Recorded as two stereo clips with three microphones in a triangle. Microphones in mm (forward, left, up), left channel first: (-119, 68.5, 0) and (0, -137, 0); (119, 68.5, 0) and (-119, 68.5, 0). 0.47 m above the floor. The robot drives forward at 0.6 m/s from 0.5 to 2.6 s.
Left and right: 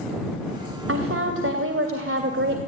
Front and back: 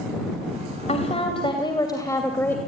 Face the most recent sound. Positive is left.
turn(degrees=-80)